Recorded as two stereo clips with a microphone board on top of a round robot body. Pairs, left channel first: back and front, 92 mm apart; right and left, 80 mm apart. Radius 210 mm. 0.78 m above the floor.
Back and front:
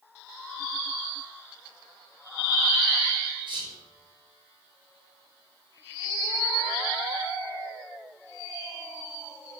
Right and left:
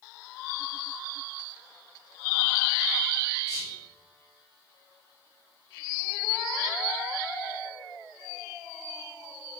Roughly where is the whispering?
Ahead.